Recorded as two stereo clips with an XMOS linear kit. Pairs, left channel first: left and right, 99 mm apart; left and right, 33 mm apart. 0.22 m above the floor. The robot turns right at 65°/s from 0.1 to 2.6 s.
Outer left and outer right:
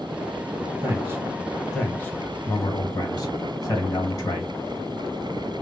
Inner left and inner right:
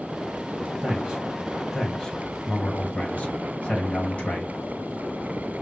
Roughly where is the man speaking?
Right.